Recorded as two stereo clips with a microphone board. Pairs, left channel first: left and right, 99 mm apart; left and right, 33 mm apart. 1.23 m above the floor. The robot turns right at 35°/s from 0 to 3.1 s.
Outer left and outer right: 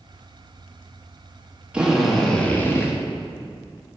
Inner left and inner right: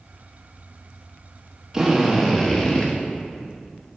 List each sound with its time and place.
1.7 s a drill: 10° right, 1.2 m; by 2.9 s 30° left, 1.2 m